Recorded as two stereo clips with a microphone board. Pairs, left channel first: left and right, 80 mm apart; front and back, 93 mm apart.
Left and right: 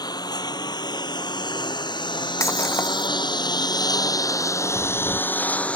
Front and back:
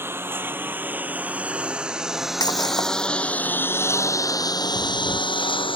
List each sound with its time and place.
0.0 s a lawn mower: 115° left; by 5.8 s 15° left
2.4 s breaking glass: 40° left
4.8 s a crack: 35° left